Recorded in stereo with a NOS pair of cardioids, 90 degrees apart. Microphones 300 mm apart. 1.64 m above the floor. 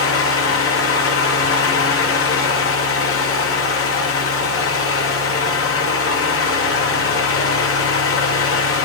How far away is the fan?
About 1.2 m.